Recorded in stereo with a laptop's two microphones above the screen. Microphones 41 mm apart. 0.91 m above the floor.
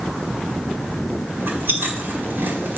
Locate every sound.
1.4 s chewing: 80° right, 2 m